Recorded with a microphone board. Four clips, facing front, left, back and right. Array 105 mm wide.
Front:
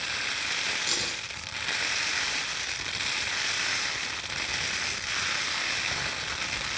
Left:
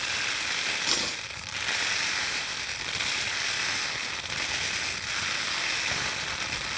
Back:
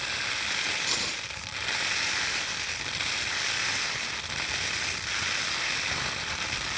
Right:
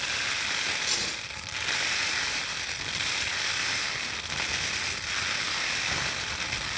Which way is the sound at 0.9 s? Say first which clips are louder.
Left 2 dB, even; 80° left.